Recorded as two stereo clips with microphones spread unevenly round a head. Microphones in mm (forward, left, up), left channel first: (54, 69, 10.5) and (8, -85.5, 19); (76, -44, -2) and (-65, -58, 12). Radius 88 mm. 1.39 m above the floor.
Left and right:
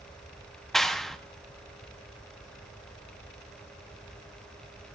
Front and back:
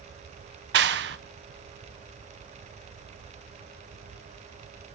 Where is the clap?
160° left, 0.7 m.